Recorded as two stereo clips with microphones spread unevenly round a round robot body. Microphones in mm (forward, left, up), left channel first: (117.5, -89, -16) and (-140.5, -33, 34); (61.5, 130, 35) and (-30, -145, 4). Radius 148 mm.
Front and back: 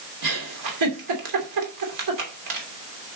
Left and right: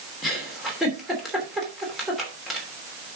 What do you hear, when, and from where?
0.2 s a giggle: 165° left, 2.5 m